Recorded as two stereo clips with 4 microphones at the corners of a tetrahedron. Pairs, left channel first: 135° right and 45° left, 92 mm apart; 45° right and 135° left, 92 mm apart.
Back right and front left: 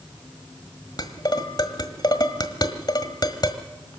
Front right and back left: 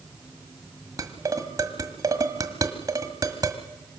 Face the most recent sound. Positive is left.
turn(degrees=-175)